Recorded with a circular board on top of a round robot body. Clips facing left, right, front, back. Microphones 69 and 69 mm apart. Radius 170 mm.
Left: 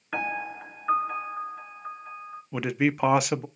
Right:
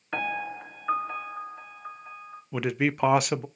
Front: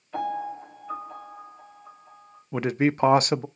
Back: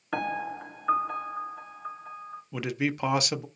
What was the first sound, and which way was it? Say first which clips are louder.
A piano: even, front 1 dB; straight behind.